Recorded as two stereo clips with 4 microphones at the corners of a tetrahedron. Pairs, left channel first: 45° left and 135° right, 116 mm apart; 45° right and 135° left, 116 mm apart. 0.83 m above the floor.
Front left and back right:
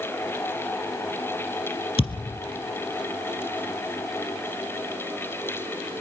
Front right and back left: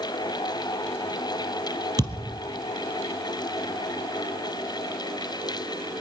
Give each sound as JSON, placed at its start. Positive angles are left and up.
{"t": 2.0, "sound": "a thud", "azimuth_deg": 85, "distance_m": 2.0}